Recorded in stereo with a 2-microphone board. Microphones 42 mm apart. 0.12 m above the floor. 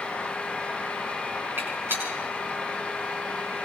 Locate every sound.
1.6 s a gunshot: 75° right (ahead or behind), 9.5 m